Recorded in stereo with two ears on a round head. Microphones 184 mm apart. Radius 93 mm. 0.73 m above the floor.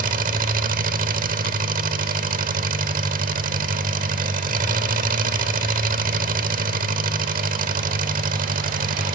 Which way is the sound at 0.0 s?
45° right (ahead or behind).